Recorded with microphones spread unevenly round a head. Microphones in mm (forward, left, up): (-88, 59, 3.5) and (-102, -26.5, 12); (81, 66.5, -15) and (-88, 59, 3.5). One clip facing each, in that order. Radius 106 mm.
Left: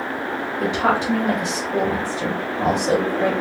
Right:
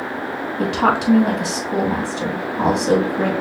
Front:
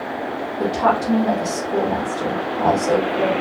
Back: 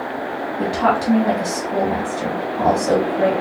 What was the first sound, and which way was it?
A woman speaking, 110° right.